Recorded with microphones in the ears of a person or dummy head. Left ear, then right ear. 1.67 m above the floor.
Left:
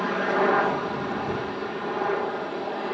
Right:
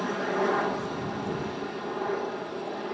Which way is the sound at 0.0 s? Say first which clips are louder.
Left 5 dB; 20° left (ahead or behind).